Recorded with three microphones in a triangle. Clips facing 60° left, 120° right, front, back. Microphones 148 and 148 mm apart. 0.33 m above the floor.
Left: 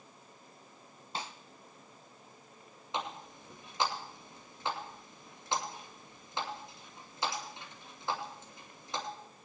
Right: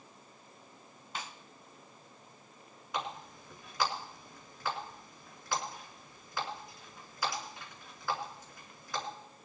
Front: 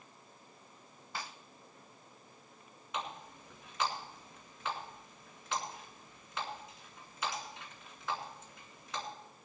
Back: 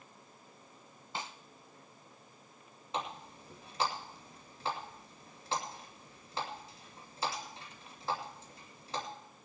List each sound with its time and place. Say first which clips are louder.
1.1 s a snare drum: left 2 dB, back 2 dB; 115° left, 0.8 m
2.9 s a running tap: even, back 2 dB; 125° left, 2.5 m